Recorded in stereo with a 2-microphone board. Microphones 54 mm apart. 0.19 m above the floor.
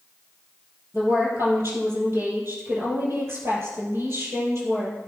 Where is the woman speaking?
50° right (ahead or behind), 4.5 m.